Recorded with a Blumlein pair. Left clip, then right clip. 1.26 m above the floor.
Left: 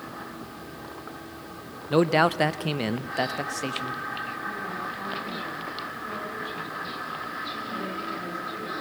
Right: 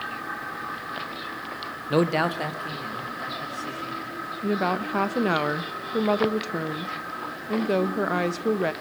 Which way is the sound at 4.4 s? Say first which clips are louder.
Right 6 dB; 50° right.